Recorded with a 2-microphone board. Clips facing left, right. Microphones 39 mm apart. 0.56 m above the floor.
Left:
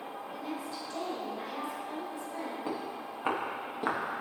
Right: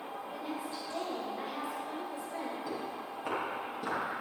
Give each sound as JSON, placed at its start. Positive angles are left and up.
{"t": 0.3, "sound": "a woman speaking", "side_deg": -30, "distance_m": 3.5}
{"t": 2.7, "sound": "footsteps", "side_deg": 40, "distance_m": 4.5}